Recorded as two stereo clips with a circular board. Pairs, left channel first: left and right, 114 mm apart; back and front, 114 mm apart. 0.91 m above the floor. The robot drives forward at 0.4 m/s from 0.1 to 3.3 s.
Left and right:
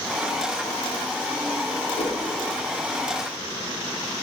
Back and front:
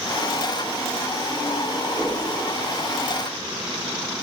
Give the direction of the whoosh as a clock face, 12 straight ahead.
9 o'clock.